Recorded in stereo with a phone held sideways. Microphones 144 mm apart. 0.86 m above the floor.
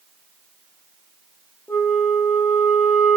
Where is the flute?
10° left (ahead or behind), 0.9 m.